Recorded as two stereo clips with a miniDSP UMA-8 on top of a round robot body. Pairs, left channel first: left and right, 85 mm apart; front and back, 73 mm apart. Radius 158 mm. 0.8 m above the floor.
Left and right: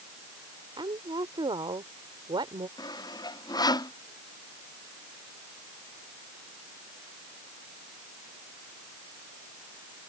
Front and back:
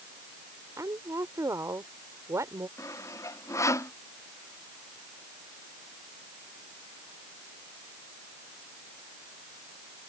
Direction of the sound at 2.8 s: 50° left.